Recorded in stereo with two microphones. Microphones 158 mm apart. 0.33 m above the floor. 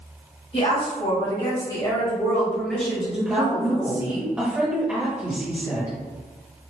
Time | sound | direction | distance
0.5 | a woman speaking | 45° left (ahead or behind) | 1.8 m
3.2 | a woman speaking | 10° right (ahead or behind) | 1.5 m